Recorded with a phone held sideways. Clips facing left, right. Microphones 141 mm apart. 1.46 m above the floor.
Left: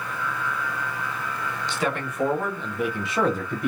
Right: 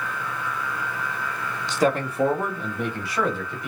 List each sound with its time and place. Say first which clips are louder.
1.7 s a man speaking: right 7 dB; 40° right (ahead or behind), 1.5 m; by 3.7 s 55° left (ahead or behind), 1.0 m